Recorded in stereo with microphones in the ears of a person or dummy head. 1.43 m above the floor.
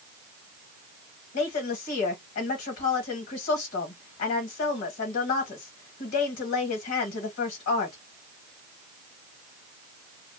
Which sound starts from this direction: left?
A woman speaking, at 1.3 s.